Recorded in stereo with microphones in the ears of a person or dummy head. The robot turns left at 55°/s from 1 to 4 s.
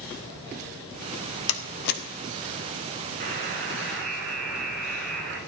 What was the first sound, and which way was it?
A door slam, 75° left (ahead or behind).